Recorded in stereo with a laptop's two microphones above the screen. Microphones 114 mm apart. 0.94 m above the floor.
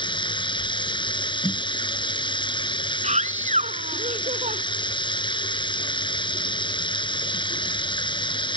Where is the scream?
85° right.